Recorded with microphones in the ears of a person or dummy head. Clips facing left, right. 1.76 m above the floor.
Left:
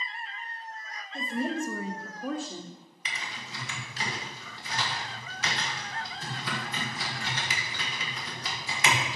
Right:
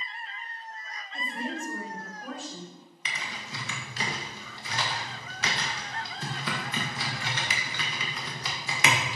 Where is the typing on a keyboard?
60° right (ahead or behind), 1.4 m.